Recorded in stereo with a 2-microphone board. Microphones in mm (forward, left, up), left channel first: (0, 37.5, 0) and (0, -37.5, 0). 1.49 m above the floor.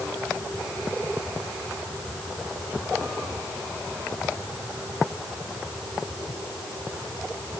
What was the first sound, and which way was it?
Only background noise.